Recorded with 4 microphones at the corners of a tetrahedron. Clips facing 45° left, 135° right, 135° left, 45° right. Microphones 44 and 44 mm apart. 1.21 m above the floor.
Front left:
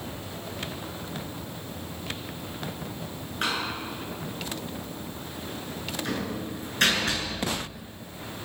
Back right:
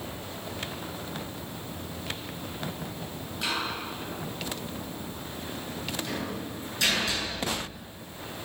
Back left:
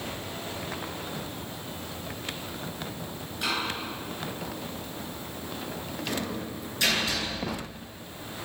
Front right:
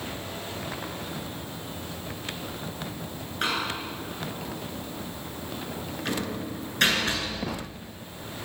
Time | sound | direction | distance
3.4 | a door slam | straight ahead | 9.5 m